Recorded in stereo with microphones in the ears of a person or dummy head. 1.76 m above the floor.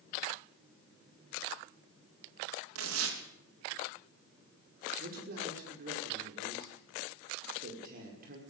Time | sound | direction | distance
2.8 | tearing paper | 90° right | 3 m
5.0 | a man speaking | 50° right (ahead or behind) | 5 m